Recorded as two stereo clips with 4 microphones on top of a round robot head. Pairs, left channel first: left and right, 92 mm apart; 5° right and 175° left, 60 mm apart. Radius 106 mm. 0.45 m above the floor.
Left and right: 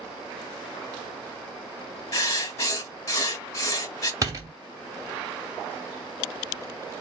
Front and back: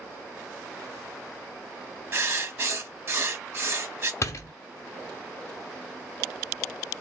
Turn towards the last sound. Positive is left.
turn(degrees=-40)